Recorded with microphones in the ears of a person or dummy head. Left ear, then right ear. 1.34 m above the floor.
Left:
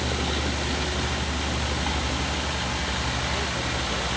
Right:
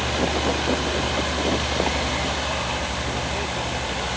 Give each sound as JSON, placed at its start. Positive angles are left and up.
{"t": 0.0, "sound": "a vehicle", "side_deg": -35}